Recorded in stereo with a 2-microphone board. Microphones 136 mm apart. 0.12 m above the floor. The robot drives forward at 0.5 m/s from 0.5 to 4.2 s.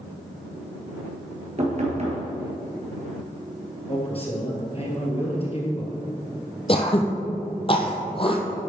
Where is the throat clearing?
40° left (ahead or behind), 1.0 m.